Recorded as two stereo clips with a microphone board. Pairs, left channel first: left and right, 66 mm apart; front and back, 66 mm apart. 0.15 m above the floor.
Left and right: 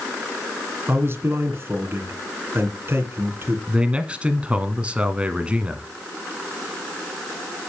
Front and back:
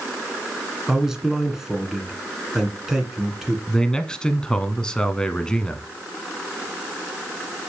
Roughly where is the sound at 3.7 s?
Ahead right.